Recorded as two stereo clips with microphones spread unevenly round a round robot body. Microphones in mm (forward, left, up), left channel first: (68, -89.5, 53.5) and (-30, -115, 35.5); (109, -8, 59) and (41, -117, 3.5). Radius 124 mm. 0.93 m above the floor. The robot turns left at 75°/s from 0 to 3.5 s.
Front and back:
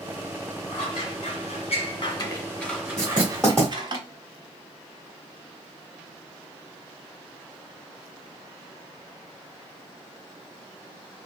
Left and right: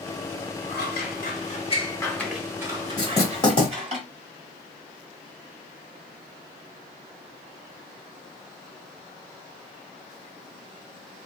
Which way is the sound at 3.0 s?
130° left.